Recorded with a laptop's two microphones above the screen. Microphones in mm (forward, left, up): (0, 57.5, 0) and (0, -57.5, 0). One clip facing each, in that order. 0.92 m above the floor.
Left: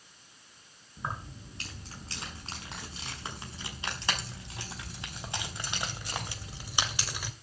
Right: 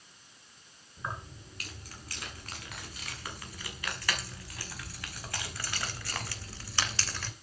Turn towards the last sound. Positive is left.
turn(degrees=15)  # may be behind; listen again after turning